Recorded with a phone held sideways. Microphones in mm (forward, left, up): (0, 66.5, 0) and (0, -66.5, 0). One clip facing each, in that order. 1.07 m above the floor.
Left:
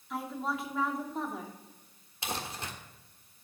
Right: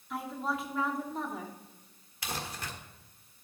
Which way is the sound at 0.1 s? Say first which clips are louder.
Even; centre (ahead or behind).